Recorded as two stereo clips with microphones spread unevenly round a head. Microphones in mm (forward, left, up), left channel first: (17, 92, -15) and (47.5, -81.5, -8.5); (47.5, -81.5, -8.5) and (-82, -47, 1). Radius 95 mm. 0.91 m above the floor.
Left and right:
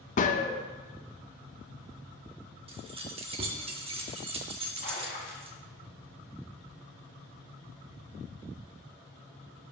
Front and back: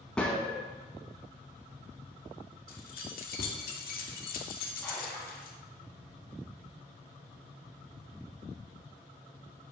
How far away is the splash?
About 1.7 m.